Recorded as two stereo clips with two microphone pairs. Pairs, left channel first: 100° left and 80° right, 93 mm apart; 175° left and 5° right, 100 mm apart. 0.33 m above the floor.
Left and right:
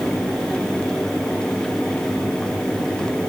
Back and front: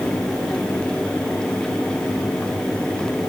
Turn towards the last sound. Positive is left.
No sound to turn to.